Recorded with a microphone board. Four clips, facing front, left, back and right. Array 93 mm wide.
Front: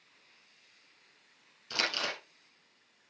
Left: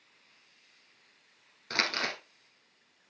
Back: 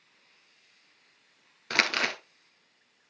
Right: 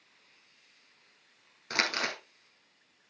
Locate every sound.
1.7 s crumpling: 175° right, 1.3 m